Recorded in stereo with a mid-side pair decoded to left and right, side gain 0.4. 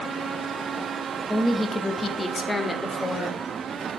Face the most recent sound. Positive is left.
turn(degrees=30)